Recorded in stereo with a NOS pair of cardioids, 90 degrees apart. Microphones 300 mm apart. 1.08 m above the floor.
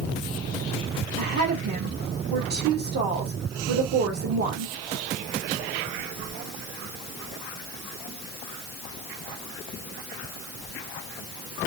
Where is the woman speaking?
65° right, 1.9 m.